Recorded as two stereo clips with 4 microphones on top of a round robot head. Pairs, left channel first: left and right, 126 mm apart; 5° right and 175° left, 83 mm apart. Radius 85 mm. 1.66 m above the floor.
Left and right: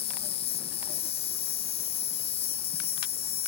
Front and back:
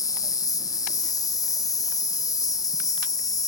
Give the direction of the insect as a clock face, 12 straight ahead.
11 o'clock.